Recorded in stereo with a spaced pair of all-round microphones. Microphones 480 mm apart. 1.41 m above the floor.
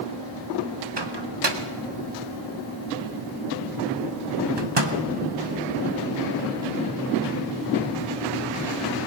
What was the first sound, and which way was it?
A microwave, 60° right (ahead or behind).